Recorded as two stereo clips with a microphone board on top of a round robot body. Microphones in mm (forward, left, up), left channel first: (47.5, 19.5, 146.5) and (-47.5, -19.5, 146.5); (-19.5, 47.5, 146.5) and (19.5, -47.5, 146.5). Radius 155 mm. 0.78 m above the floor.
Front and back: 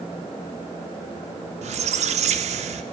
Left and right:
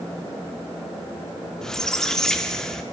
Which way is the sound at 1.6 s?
160° right.